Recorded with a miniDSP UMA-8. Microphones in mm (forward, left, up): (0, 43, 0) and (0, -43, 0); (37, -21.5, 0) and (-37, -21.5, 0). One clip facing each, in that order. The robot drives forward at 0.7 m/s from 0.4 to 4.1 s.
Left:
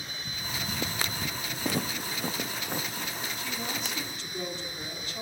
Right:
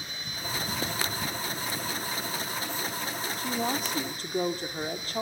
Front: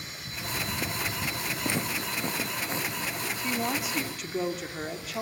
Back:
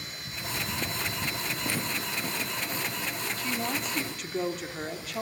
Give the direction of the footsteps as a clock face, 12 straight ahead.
10 o'clock.